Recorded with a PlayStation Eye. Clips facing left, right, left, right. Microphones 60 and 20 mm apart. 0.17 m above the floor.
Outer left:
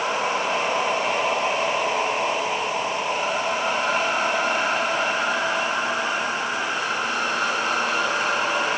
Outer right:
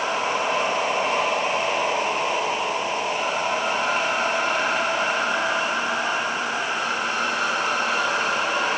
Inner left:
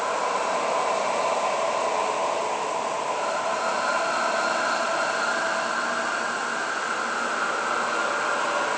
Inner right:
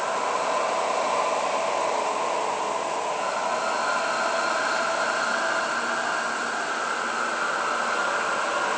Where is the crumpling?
I don't hear crumpling.